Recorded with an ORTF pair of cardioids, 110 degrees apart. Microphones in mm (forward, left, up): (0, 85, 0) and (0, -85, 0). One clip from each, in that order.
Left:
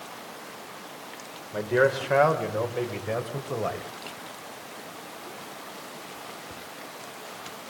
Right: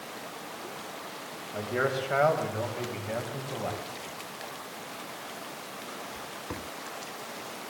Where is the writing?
No writing in this recording.